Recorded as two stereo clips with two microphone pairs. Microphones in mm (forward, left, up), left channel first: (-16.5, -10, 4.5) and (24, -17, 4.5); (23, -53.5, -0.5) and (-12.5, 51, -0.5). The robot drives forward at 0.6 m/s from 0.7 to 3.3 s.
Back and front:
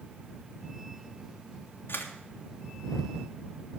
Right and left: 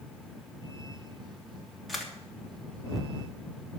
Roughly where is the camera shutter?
Behind.